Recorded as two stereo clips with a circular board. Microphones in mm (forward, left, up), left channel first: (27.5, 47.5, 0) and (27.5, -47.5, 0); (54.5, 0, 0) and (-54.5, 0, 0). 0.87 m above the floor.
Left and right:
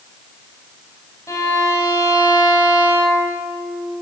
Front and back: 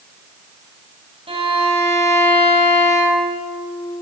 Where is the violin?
145° left, 3.5 m.